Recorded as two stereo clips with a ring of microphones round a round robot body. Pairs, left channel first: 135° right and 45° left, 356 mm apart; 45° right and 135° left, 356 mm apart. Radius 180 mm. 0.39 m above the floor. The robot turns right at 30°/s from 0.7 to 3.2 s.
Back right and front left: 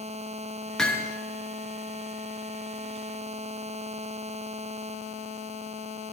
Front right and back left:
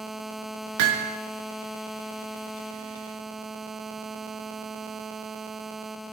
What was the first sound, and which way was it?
Hammering, 135° left.